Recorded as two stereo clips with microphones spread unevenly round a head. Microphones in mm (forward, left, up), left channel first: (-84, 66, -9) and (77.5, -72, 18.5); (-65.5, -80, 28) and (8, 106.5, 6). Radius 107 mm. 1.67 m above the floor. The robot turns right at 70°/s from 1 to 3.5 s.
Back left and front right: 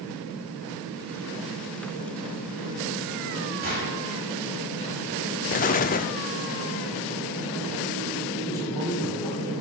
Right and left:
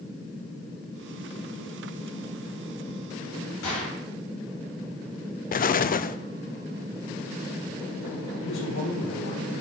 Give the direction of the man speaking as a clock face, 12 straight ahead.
5 o'clock.